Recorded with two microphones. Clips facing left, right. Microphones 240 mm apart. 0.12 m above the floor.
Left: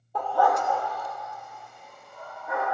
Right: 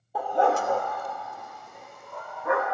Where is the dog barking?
5° right (ahead or behind), 1.1 m; by 2.6 s 75° right (ahead or behind), 3 m.